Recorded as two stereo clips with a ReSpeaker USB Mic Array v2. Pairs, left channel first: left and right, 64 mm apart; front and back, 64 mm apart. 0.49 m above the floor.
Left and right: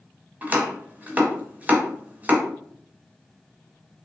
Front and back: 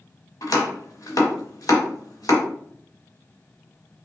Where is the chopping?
25° right, 1.1 m.